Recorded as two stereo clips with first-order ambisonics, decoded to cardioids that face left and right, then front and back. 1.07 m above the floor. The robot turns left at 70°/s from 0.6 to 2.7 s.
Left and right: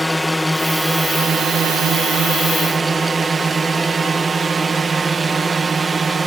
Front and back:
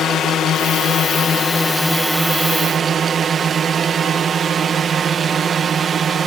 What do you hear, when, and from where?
0.0 s a drone: straight ahead; by 6.3 s 145° right